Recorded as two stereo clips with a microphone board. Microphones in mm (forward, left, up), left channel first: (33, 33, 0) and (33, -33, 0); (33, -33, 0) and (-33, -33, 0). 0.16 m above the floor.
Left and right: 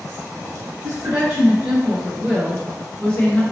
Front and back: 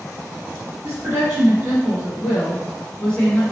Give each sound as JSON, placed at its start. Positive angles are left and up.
{"t": 0.8, "sound": "a woman speaking", "azimuth_deg": -130, "distance_m": 1.9}